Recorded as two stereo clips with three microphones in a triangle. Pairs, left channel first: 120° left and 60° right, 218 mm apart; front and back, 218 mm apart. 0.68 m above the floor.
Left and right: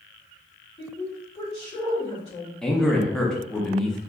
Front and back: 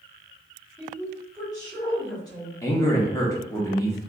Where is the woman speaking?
65° left, 1.7 m.